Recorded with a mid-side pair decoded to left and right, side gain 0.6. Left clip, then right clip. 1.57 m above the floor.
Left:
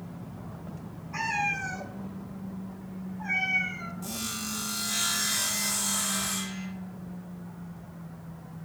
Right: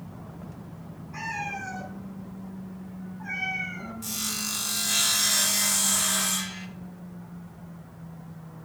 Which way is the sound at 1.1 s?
30° left.